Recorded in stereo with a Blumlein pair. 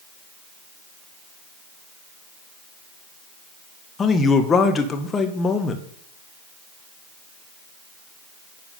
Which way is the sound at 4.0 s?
20° left.